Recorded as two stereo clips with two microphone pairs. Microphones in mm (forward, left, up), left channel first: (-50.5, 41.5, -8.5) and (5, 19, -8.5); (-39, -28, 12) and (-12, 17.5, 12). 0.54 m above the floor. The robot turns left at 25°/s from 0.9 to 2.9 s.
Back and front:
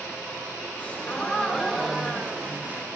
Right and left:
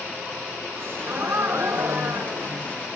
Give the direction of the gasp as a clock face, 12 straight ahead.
9 o'clock.